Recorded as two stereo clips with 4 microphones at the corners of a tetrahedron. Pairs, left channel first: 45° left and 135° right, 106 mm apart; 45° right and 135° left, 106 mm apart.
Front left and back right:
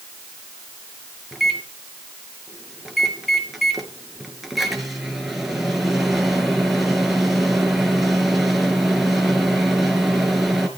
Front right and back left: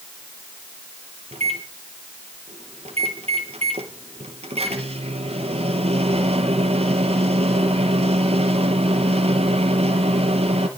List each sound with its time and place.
1.3 s a microwave: 135° left, 3 m